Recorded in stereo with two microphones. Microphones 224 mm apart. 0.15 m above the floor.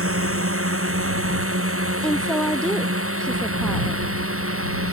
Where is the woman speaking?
5° left (ahead or behind).